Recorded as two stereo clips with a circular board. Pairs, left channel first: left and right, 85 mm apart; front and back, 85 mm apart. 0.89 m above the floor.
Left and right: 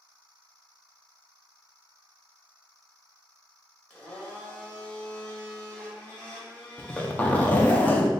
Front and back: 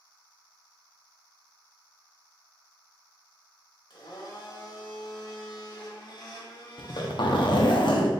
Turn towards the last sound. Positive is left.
turn(degrees=20)